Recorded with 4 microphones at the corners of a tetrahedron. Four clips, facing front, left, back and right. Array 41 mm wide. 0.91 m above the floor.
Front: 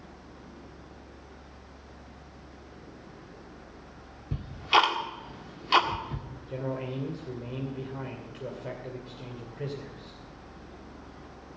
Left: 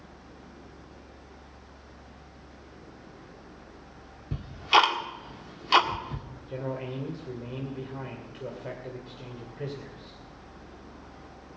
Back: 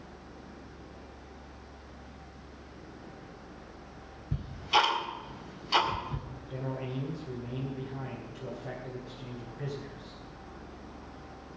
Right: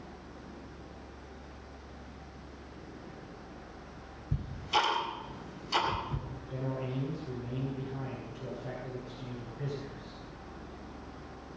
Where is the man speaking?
45° left, 2.5 m.